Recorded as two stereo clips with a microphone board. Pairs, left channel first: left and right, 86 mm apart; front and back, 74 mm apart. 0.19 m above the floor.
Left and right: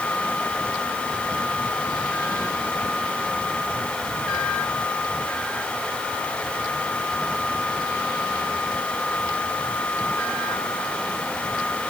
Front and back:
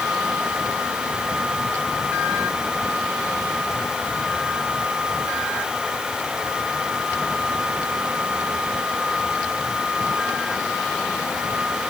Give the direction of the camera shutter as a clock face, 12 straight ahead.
I don't hear a camera shutter.